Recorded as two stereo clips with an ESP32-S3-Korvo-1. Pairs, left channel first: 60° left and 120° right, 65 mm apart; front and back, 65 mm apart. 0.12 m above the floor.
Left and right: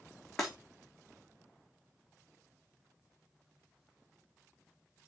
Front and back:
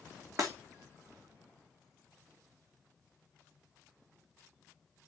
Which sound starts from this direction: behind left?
Breaking glass, at 0.4 s.